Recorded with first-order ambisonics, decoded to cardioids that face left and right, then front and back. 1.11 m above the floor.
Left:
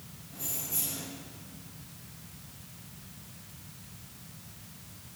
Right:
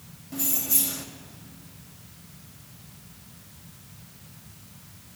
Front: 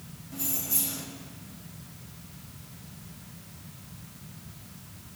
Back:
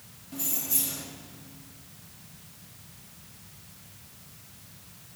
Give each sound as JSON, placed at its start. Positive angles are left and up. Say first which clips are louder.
{"t": 0.3, "sound": "keys jangling", "louder": "right 8 dB, back 1 dB", "azimuth_deg": -100, "distance_m": 1.4}